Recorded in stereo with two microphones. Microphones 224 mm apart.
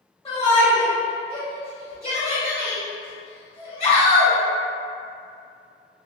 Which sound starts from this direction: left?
A shout, at 0.2 s.